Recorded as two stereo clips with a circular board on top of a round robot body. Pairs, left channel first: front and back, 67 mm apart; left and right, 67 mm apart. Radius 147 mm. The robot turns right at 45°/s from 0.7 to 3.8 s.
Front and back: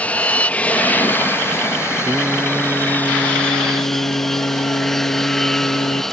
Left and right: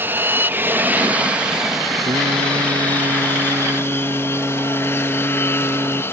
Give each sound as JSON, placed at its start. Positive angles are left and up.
{"t": 0.0, "sound": "an aircraft", "azimuth_deg": -55}
{"t": 2.0, "sound": "singing", "azimuth_deg": -110}